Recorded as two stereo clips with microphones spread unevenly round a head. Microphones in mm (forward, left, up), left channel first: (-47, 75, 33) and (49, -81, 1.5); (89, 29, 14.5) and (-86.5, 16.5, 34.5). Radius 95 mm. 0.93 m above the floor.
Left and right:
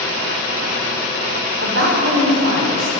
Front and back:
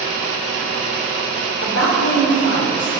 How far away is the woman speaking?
About 3 m.